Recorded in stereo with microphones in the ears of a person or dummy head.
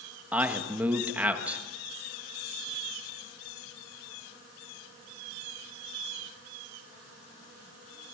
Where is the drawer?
I don't hear a drawer.